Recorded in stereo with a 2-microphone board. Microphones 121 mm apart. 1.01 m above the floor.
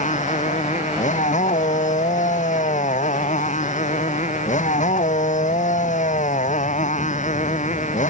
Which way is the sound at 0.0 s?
90° left.